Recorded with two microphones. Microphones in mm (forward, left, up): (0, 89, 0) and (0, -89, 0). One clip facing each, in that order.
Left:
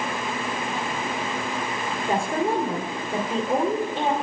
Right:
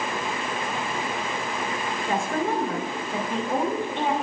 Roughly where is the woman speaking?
Centre.